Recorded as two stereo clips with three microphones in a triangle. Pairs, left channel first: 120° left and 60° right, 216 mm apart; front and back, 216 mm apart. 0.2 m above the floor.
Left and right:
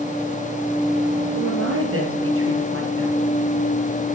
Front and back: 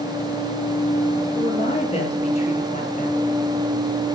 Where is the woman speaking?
65° right, 5 m; by 3.2 s 55° right, 4 m.